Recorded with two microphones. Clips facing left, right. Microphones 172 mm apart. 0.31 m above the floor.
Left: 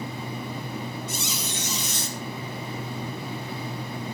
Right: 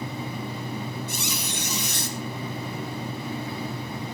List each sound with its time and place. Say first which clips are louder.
1.1 s a squeak: right 1 dB; 60° right (ahead or behind), 2.0 m